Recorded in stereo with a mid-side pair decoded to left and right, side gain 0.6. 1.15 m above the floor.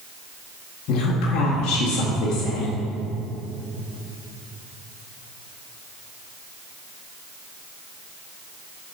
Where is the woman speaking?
65° left, 1.6 m.